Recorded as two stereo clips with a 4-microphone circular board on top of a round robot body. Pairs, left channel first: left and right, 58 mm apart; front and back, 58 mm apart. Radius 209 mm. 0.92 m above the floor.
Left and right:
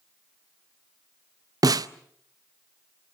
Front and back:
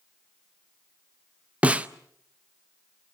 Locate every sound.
1.6 s a snare drum: 110° right, 0.6 m